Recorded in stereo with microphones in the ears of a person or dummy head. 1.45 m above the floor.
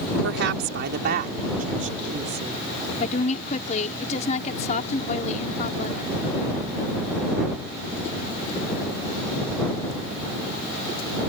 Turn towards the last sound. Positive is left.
turn(degrees=45)  # may be behind; listen again after turning